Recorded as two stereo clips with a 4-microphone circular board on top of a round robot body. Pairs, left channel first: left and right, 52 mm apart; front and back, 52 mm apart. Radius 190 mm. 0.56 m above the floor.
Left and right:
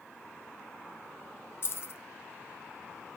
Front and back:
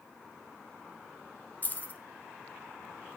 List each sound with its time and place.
1.6 s keys jangling: 55° left, 0.6 m